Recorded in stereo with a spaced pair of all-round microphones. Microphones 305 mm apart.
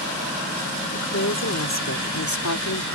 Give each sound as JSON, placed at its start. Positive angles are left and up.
{"t": 0.9, "sound": "a woman speaking", "side_deg": 50}